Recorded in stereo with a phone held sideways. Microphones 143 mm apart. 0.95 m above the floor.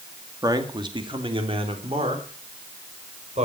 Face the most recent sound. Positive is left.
turn(degrees=-50)  # may be behind; listen again after turning